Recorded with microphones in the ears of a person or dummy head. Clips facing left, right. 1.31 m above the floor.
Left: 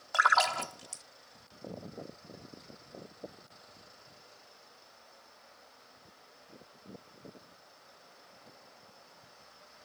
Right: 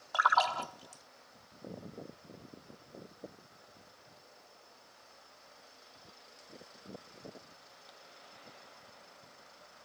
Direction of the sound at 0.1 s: 30° left (ahead or behind).